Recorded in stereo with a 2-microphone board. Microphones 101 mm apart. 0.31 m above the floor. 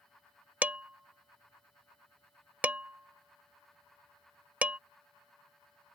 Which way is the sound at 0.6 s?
15° right (ahead or behind).